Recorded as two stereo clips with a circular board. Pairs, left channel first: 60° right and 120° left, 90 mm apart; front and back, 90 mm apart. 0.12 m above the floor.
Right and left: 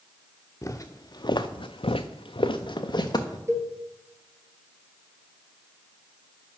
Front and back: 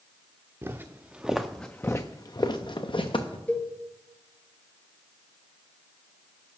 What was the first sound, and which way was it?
Footsteps, 120° right.